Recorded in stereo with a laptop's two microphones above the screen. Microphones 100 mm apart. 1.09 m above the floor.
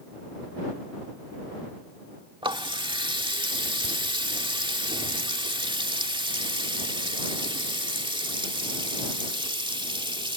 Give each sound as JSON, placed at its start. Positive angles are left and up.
{"t": 2.4, "sound": "a running tap", "side_deg": -55}